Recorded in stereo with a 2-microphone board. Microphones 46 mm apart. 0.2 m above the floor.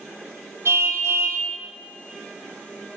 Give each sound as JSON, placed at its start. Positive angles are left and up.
{"t": 0.7, "sound": "a car horn", "side_deg": -80, "distance_m": 4.5}